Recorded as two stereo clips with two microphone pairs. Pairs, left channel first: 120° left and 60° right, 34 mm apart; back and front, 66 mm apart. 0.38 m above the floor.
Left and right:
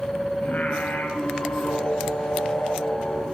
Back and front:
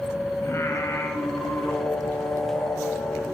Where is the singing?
150° left, 2.5 m.